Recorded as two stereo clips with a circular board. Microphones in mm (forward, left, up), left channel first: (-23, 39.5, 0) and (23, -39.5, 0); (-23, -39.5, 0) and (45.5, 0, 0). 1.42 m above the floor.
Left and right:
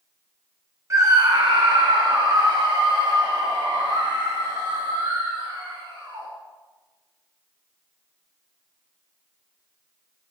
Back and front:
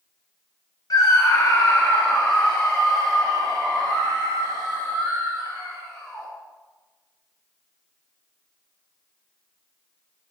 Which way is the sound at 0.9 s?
115° right.